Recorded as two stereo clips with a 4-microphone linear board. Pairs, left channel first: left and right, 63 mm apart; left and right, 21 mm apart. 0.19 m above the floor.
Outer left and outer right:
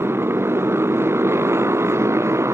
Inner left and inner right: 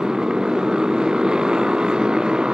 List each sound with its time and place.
0.0 s a motorcycle: 40° right (ahead or behind); by 2.5 s 50° right (ahead or behind)